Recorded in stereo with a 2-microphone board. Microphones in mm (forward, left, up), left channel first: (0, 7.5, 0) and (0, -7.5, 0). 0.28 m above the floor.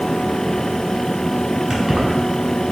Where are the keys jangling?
40° right (ahead or behind), 1.6 m.